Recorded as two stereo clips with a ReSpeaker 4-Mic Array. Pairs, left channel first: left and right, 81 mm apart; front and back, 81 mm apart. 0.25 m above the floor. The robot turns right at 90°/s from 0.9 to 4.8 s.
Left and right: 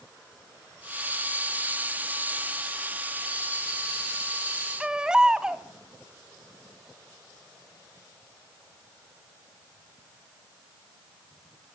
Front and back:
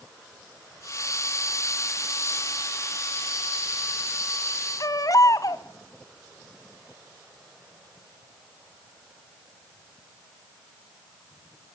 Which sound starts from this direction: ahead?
A baby crying, at 4.8 s.